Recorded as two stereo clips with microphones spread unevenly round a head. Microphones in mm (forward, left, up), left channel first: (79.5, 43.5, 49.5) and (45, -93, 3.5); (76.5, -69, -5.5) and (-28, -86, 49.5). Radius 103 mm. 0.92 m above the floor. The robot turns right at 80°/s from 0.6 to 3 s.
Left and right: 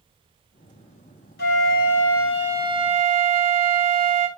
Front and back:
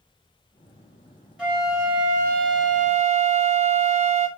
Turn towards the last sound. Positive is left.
turn(degrees=-135)